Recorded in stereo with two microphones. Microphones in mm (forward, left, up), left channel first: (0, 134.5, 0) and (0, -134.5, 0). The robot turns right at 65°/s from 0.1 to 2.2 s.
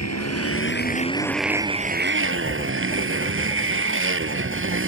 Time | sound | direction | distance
0.0 | a motorcycle | 95° left | ?
2.2 | writing | 35° left (ahead or behind) | ?